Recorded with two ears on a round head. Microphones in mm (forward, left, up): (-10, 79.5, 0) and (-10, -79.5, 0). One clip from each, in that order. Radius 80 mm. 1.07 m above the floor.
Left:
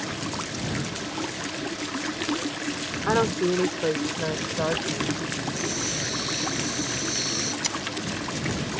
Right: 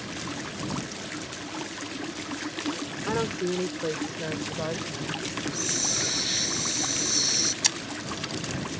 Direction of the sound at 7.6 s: 45° right (ahead or behind).